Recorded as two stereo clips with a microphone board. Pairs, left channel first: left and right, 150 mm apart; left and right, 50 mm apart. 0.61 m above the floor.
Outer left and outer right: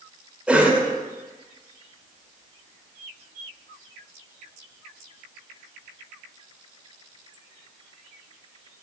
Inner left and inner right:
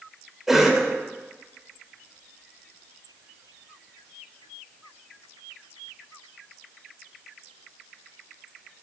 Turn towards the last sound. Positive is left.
turn(degrees=-10)  # may be behind; listen again after turning